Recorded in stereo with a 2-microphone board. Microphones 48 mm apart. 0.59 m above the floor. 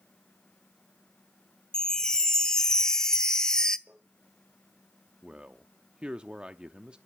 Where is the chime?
15° left (ahead or behind), 0.6 m.